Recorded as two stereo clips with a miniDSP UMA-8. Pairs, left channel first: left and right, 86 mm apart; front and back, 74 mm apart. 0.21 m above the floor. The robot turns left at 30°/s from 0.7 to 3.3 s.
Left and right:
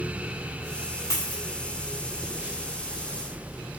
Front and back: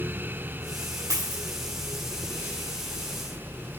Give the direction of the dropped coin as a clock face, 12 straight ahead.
8 o'clock.